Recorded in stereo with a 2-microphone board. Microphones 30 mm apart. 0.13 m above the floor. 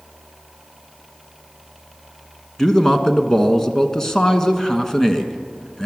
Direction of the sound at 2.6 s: 15° left (ahead or behind).